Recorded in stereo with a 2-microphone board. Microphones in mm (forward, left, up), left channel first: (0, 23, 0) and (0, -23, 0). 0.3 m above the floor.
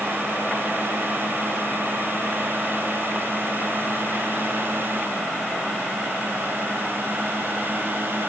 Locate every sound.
Only background noise.